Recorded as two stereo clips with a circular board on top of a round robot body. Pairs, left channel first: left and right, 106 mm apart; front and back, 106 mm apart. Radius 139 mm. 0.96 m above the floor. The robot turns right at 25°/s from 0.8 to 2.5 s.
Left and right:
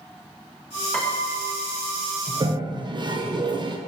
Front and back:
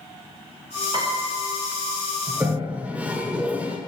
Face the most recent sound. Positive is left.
turn(degrees=-105)